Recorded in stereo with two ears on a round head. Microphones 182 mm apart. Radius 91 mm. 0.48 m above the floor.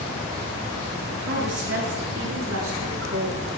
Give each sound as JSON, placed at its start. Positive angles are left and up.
{"t": 1.3, "sound": "a woman speaking", "side_deg": -60, "distance_m": 8.0}